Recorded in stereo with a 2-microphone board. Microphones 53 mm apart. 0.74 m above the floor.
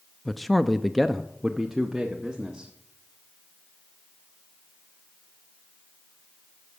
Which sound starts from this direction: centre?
A man speaking, at 0.2 s.